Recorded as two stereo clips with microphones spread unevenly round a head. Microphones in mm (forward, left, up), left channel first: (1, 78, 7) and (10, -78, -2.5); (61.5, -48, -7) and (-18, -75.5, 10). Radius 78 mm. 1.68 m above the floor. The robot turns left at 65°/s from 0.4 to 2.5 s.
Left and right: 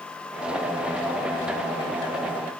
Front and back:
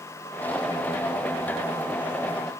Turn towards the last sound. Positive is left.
No sound to turn to.